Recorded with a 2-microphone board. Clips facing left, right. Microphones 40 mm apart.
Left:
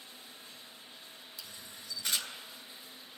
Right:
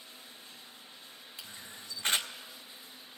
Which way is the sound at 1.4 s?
35° right (ahead or behind).